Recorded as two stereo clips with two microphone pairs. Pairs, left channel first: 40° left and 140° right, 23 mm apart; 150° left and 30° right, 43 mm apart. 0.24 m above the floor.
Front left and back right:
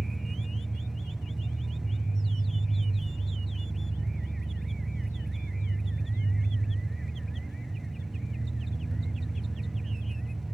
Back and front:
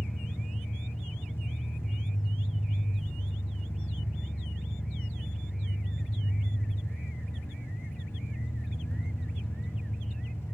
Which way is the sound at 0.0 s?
140° left.